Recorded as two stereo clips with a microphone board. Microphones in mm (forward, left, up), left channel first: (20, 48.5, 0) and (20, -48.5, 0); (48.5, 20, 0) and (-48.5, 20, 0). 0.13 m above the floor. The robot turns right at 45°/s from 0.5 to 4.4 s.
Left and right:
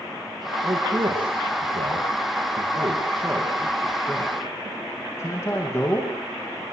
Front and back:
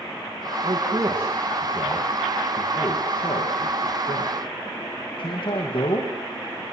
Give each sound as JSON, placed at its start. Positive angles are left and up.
{"t": 0.6, "sound": "a man speaking", "azimuth_deg": -140, "distance_m": 7.5}